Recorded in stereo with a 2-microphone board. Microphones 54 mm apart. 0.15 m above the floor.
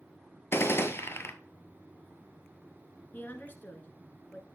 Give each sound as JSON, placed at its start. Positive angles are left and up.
{"t": 0.5, "sound": "a gunshot", "side_deg": 50, "distance_m": 0.7}
{"t": 3.1, "sound": "a woman speaking", "side_deg": 35, "distance_m": 1.7}